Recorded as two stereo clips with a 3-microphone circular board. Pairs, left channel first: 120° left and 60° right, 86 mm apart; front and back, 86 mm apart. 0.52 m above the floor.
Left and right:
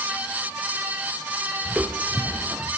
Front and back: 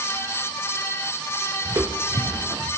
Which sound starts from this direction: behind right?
Footsteps, at 1.6 s.